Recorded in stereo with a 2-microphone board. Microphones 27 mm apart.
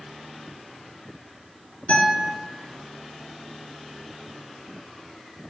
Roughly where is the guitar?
Left.